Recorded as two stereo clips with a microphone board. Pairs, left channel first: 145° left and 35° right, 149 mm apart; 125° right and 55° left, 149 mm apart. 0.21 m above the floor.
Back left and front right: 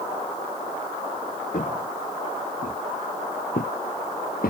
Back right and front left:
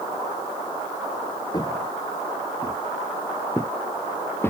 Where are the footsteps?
175° left; by 4.5 s 160° left.